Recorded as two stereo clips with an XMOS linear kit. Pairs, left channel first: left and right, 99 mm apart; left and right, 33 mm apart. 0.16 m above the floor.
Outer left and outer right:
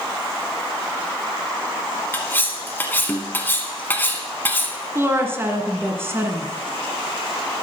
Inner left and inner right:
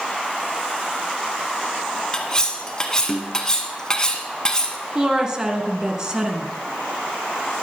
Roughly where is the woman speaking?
Right.